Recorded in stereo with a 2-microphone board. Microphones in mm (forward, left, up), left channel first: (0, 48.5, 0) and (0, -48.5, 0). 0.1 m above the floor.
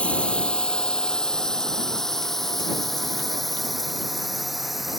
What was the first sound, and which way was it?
A drone, 10° left (ahead or behind).